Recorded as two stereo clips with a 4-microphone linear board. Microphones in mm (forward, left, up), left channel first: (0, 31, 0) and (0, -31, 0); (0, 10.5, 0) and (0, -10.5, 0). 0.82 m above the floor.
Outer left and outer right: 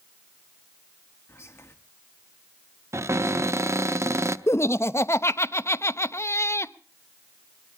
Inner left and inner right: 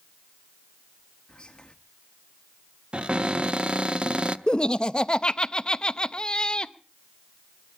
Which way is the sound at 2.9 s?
45° right (ahead or behind).